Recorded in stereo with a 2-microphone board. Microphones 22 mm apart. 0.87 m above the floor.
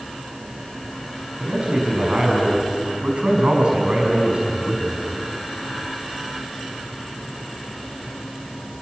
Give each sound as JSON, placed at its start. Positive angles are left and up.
{"t": 1.4, "sound": "a man speaking", "side_deg": -55, "distance_m": 6.0}